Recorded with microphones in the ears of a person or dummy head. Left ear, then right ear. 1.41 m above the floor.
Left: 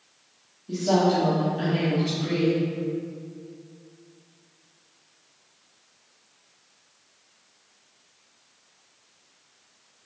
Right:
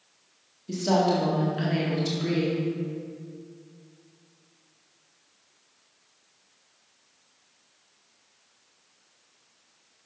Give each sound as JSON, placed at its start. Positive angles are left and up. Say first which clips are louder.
{"t": 0.7, "sound": "a woman speaking", "louder": "left 1 dB", "side_deg": -70, "distance_m": 1.8}